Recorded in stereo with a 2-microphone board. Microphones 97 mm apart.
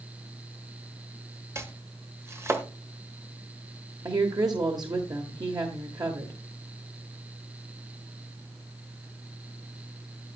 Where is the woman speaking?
45° right (ahead or behind), 1.4 m.